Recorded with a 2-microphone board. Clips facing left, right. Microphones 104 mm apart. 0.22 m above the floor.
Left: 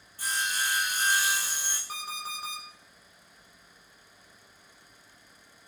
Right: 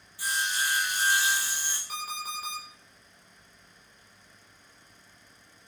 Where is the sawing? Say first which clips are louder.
Right 1 dB; 45° left (ahead or behind), 0.9 m.